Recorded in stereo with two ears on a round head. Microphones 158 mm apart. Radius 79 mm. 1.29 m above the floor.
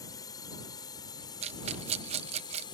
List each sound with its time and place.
0.0 s a drone: 20° left (ahead or behind); by 2.8 s 25° left (ahead or behind)
1.4 s a rattle: 40° right (ahead or behind)